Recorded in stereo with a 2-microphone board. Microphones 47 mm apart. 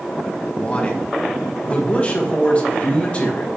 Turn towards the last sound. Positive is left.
turn(degrees=25)  # may be behind; listen again after turning